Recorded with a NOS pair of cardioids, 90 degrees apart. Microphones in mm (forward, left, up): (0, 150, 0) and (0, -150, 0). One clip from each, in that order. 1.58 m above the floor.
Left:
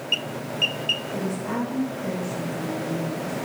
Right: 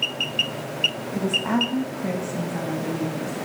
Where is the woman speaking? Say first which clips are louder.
Right 5 dB; 55° right, 2.0 m; by 3.5 s 70° right, 3 m.